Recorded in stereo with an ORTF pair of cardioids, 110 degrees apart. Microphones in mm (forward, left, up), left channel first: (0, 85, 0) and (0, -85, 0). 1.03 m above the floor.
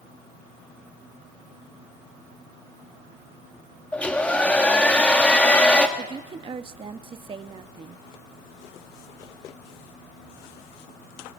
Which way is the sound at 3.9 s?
10° left.